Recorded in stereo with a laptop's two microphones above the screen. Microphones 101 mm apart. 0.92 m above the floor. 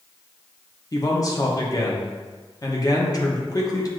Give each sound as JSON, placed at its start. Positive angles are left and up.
{"t": 0.9, "sound": "a man speaking", "side_deg": 35, "distance_m": 0.7}